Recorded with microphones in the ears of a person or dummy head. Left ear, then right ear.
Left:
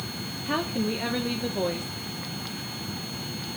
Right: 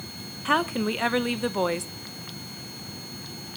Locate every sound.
0.5 s a woman speaking: 45° right (ahead or behind), 0.9 m